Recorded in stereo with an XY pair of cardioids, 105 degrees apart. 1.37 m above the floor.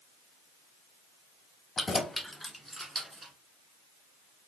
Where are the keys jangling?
30° left, 0.8 m; by 3.3 s 30° right, 1.8 m.